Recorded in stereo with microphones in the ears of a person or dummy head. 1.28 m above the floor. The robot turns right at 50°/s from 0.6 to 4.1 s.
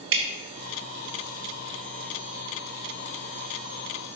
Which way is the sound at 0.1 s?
60° right (ahead or behind).